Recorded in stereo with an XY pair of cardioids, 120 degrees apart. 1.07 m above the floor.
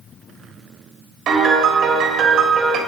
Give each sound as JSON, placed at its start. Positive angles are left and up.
{"t": 1.3, "sound": "a piano", "azimuth_deg": -65, "distance_m": 3.0}